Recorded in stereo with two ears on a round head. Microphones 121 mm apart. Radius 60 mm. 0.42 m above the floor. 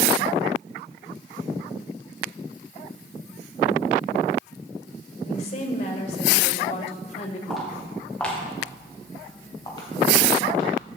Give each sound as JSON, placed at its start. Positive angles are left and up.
{"t": 5.2, "sound": "a woman speaking", "side_deg": 50, "distance_m": 1.2}
{"t": 7.5, "sound": "footsteps", "side_deg": 0, "distance_m": 4.5}